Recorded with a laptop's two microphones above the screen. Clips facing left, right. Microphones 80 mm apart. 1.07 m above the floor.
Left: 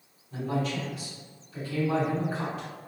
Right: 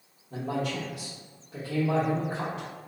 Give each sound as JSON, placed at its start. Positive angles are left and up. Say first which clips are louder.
{"t": 0.3, "sound": "a man speaking", "louder": "left 1 dB", "side_deg": -75, "distance_m": 1.0}